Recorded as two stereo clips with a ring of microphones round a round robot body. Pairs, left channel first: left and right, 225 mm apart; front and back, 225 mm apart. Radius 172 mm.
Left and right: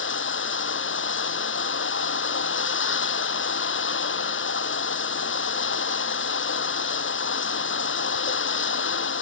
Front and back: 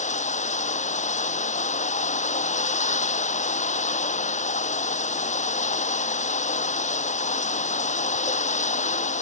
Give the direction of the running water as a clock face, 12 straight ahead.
10 o'clock.